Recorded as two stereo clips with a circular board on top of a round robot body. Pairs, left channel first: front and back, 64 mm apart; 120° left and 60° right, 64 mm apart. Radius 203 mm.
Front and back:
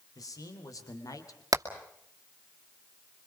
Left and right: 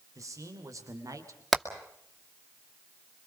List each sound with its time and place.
0.1 s a man speaking: 25° right, 4 m
1.5 s hammering: 150° right, 2.5 m